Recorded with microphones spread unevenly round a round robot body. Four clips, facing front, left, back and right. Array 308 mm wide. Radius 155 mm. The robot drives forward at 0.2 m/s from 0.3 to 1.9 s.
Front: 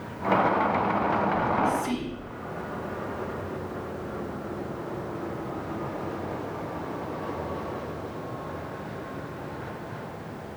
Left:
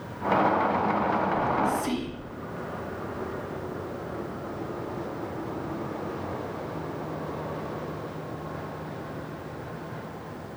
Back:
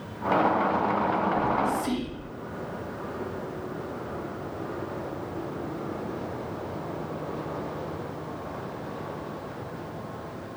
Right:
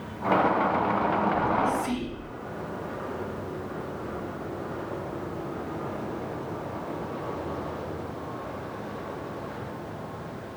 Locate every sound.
1.3 s whispering: 125° left, 0.6 m; by 2.3 s 140° left, 0.6 m